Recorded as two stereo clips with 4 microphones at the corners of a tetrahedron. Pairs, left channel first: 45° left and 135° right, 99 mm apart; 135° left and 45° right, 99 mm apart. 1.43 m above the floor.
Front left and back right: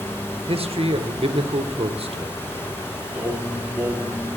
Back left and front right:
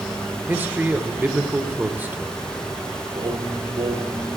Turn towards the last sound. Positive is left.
turn(degrees=-65)